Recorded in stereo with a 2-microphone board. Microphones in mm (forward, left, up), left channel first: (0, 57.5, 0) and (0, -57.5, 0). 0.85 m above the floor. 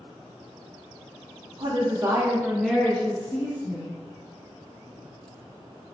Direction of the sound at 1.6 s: 40° right (ahead or behind).